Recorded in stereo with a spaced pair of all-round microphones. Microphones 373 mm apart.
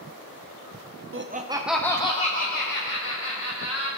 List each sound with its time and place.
1.1 s laughter: 35° right (ahead or behind), 0.5 m; by 3.9 s 40° left (ahead or behind), 1.7 m